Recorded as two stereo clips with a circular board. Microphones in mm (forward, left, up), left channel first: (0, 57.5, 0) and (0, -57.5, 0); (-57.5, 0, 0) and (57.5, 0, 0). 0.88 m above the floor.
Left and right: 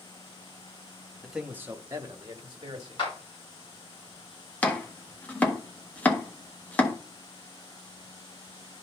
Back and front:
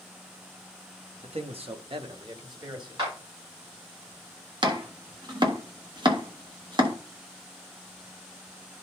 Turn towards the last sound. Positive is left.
turn(degrees=20)